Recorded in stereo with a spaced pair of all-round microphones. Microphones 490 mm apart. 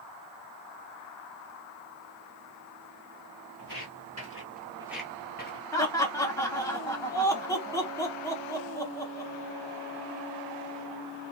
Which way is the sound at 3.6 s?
50° right (ahead or behind).